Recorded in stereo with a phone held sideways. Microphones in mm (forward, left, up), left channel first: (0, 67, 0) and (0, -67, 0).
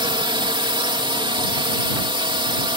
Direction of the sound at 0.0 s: 40° right (ahead or behind).